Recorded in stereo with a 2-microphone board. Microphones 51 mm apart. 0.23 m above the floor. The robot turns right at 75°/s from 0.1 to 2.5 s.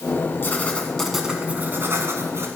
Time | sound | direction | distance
0.4 | writing | 130° left | 1.5 m